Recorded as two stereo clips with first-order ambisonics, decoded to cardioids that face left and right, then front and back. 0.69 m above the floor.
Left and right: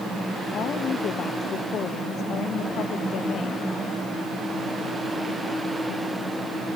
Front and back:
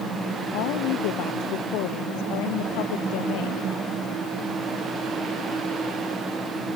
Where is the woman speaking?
30° left.